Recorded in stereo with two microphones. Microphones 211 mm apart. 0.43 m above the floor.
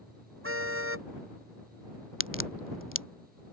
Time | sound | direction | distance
0.4 | a car horn | 90° right | ?
2.2 | a crack | 75° left (ahead or behind) | ?